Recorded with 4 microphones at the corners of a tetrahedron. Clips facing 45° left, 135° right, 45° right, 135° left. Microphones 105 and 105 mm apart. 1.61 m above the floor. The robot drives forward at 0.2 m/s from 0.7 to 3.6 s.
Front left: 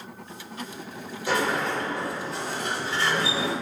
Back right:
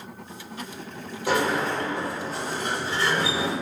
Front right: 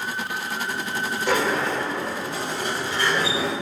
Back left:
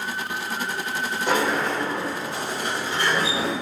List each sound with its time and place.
1.3 s a sliding door: 155° right, 1.9 m; by 3.5 s 160° right, 2 m